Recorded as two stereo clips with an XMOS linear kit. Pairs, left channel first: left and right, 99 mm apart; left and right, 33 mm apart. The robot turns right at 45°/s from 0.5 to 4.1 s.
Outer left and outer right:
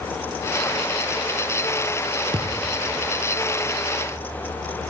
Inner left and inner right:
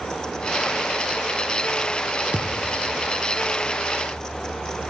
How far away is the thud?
About 2.5 m.